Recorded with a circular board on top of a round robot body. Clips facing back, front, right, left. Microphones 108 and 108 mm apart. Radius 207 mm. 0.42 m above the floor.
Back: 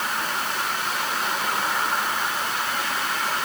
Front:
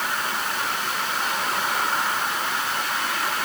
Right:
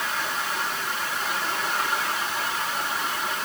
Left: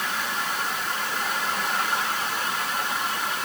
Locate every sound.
Only background noise.